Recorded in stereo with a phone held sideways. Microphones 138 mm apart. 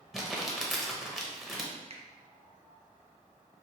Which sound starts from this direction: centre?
Crumpling, at 0.1 s.